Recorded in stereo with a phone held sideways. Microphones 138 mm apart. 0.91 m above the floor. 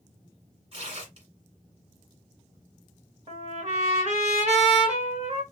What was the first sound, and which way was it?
Tearing paper, 50° right (ahead or behind).